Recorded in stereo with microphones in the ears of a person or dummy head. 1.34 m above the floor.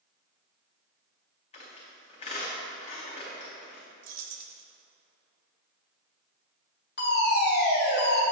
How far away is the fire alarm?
About 1.8 m.